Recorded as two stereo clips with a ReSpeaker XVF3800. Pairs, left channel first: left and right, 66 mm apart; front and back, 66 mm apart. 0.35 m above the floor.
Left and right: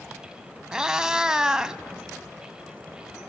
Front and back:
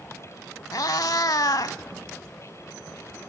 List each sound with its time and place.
0.7 s a cat meowing: 10° right, 0.6 m